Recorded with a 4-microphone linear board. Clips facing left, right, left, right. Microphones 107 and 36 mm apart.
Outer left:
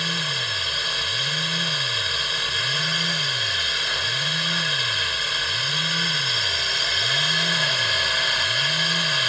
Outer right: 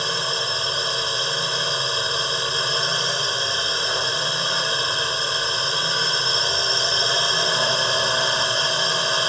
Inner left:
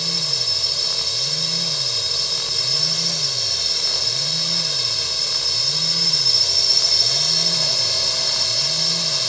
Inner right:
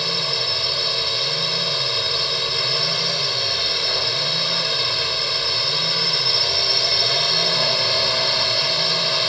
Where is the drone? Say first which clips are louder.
Outer right 4 dB, inner right 3 dB; 30° right (ahead or behind).